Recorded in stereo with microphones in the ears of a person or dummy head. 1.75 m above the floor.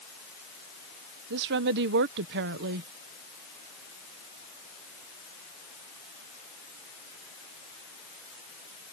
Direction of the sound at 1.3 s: 60° right (ahead or behind).